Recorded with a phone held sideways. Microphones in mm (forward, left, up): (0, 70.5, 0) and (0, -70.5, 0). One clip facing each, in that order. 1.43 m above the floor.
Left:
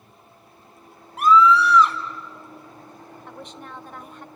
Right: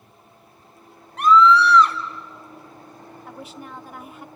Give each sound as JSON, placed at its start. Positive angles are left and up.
{"t": 1.2, "sound": "a scream", "side_deg": 5, "distance_m": 4.5}
{"t": 3.3, "sound": "a woman speaking", "side_deg": -5, "distance_m": 0.9}